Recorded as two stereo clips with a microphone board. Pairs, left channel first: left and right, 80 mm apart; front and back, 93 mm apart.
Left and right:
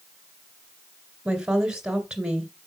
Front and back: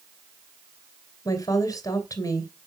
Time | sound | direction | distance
1.2 | a woman speaking | 15° right | 2 m